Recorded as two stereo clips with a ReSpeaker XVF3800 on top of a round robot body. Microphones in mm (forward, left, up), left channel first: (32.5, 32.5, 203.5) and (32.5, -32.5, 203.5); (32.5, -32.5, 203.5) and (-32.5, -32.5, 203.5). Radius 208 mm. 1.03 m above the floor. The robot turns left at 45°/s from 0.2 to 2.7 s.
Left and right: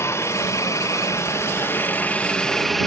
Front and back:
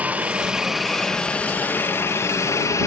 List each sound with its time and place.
0.0 s a helicopter: 115° left; by 2.9 s 5° left